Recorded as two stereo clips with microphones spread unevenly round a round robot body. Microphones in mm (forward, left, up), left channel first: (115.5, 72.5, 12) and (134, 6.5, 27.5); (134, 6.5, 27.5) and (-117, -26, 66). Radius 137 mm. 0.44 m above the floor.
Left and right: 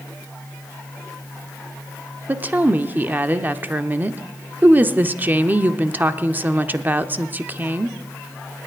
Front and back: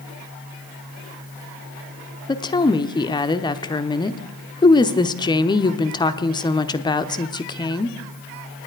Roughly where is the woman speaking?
Ahead.